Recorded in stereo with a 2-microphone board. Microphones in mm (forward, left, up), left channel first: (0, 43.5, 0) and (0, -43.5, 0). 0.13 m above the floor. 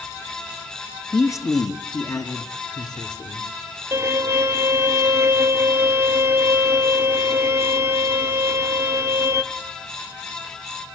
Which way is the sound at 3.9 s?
30° right (ahead or behind).